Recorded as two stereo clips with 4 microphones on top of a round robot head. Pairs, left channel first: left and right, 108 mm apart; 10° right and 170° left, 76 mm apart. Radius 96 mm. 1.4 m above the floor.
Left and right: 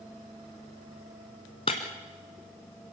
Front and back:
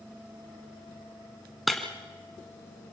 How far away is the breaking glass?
About 1.4 m.